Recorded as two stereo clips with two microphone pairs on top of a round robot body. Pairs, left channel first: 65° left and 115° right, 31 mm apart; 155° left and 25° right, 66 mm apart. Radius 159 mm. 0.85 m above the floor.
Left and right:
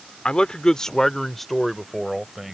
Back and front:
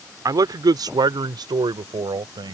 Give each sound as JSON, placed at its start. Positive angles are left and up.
{"t": 0.2, "sound": "a man speaking", "azimuth_deg": 5}